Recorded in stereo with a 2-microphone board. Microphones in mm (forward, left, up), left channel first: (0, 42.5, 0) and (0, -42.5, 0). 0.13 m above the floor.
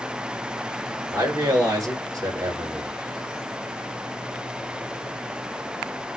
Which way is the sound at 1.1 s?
40° right (ahead or behind).